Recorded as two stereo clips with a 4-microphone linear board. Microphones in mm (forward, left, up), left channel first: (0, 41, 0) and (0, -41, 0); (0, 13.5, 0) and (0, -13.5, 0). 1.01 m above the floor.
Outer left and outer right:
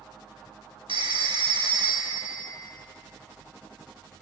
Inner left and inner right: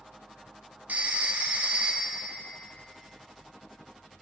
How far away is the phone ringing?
About 1.2 m.